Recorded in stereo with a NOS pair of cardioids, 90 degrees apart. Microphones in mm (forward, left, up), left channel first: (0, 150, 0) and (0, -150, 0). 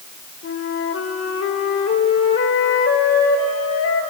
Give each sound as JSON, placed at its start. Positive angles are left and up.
{"t": 0.4, "sound": "a flute", "azimuth_deg": 55, "distance_m": 2.0}